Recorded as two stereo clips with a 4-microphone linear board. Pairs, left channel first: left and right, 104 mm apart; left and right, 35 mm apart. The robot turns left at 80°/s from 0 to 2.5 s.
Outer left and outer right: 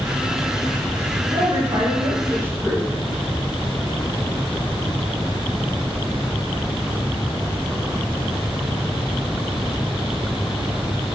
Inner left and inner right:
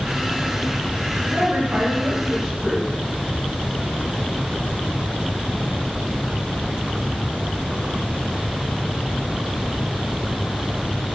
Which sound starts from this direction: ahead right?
A woman speaking, at 1.3 s.